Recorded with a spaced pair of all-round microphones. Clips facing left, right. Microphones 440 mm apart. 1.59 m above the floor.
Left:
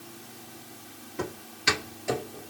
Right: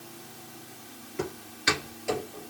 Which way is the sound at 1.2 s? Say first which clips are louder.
Right 1 dB; 55° left (ahead or behind).